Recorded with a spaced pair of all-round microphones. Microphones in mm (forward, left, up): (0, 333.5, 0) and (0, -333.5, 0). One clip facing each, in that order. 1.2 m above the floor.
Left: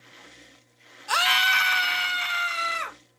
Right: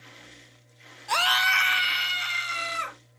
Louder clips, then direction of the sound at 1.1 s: Even; 40° left (ahead or behind).